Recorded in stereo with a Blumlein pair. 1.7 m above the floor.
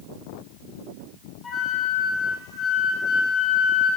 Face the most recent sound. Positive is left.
turn(degrees=15)